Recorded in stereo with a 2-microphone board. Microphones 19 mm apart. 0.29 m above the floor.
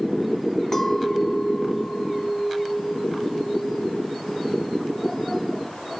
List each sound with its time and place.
0.7 s a clink: 30° left (ahead or behind), 1.7 m